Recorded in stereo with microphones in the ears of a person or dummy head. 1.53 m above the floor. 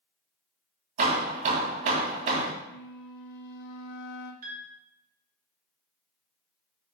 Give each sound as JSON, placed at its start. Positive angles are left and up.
{"t": 1.0, "sound": "hammering", "side_deg": -40, "distance_m": 2.0}
{"t": 2.6, "sound": "a flute", "side_deg": 65, "distance_m": 0.9}
{"t": 4.4, "sound": "a piano", "side_deg": -45, "distance_m": 1.2}